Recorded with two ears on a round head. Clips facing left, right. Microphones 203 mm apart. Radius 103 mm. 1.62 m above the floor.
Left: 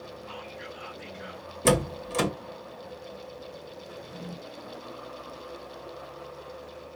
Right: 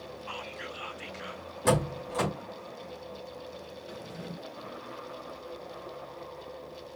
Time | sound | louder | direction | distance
0.3 | whispering | even | 45° right (ahead or behind) | 0.9 m
1.6 | a door slam | left 3 dB | 35° left (ahead or behind) | 1.3 m
3.9 | a drawer | even | 70° right (ahead or behind) | 2.5 m